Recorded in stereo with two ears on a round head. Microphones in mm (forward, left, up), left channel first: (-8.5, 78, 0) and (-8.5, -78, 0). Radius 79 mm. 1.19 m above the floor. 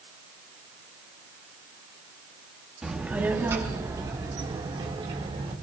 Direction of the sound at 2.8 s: 5° right (ahead or behind).